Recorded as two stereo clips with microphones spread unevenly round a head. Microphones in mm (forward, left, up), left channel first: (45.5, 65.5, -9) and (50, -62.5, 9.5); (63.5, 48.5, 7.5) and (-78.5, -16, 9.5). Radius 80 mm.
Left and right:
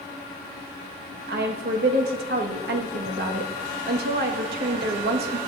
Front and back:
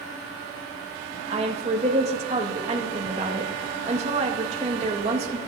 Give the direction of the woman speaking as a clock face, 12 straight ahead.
3 o'clock.